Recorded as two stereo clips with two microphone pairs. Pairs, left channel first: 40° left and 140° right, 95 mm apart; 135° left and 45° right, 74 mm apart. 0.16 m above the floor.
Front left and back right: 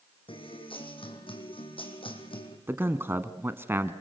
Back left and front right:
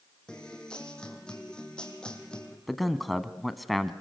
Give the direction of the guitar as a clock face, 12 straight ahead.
10 o'clock.